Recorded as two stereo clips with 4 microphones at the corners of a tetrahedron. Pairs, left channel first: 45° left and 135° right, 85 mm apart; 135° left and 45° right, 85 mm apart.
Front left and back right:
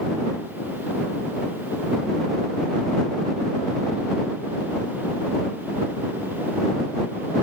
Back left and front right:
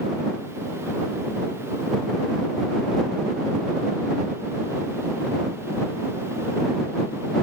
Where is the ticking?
I don't hear ticking.